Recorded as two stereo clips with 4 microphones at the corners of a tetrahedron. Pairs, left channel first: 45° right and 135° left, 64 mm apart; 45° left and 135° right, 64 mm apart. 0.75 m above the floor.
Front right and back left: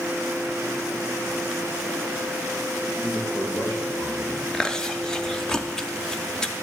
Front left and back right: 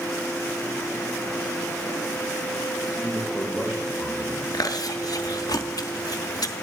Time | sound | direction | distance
2.9 | a man speaking | 85° right | 4 m
4.5 | chewing | 30° left | 0.5 m